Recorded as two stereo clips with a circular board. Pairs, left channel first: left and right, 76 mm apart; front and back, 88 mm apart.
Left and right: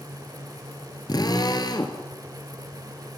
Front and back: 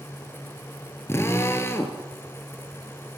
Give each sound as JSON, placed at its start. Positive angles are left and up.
{"t": 1.1, "sound": "a drill", "azimuth_deg": 60, "distance_m": 2.5}